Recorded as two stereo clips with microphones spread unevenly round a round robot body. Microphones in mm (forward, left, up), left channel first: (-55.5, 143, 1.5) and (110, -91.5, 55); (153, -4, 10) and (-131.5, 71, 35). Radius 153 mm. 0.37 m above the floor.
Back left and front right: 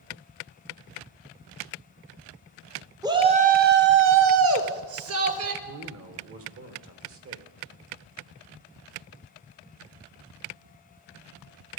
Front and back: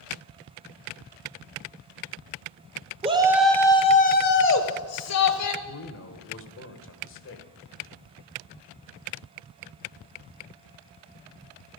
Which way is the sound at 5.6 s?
20° right.